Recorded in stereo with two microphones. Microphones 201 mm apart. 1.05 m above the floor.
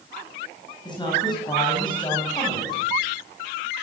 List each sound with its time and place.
0.8 s a woman speaking: 20° left (ahead or behind), 8 m